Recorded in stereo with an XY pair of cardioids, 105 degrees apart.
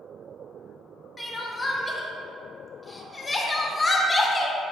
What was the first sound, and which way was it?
Crying, 20° left.